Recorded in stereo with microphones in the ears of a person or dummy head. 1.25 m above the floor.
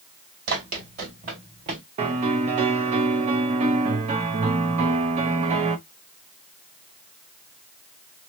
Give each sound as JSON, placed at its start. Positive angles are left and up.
{"t": 0.5, "sound": "running footsteps", "side_deg": -50, "distance_m": 2.0}
{"t": 2.0, "sound": "a piano", "side_deg": -30, "distance_m": 0.5}